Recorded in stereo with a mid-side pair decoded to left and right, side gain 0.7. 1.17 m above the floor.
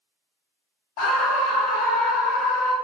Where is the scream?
65° left, 1.5 m.